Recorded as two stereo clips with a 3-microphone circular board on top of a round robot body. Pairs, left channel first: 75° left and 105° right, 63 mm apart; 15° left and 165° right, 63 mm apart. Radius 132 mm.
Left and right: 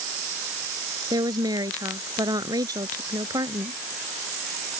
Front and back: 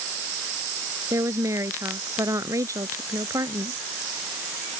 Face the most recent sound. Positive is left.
turn(degrees=-130)